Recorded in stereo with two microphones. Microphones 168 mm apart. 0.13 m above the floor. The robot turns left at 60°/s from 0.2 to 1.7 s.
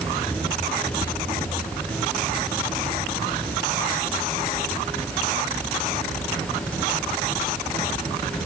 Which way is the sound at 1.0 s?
70° left (ahead or behind).